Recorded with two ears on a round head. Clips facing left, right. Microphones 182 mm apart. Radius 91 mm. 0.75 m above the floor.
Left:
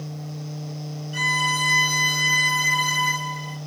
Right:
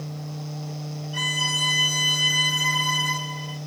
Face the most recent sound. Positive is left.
turn(degrees=30)  # may be behind; listen again after turning